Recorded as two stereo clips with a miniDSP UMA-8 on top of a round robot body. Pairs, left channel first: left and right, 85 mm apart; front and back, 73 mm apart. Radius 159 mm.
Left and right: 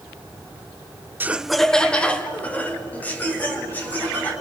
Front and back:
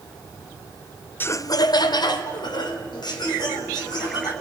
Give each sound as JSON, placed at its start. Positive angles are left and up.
{"t": 1.2, "sound": "laughter", "azimuth_deg": -40, "distance_m": 0.6}